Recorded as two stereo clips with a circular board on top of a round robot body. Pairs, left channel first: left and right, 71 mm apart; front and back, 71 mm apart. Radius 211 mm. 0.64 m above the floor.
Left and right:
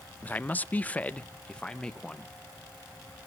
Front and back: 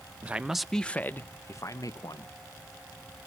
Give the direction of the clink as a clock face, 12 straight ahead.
No clink in this recording.